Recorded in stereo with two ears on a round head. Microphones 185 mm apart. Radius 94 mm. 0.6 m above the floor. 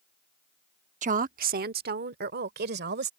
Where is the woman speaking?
35° right (ahead or behind); by 3.1 s 55° right (ahead or behind).